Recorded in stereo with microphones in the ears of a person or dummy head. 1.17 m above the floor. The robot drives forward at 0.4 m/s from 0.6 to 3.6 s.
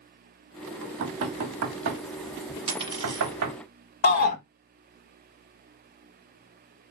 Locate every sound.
0.8 s knocking: 75° right (ahead or behind), 1.3 m; by 3.6 s 55° right (ahead or behind), 1.5 m
2.7 s a dropped coin: 25° right (ahead or behind), 1.7 m; by 3.4 s 20° right (ahead or behind), 1.9 m
4.0 s a shout: 45° left (ahead or behind), 1.1 m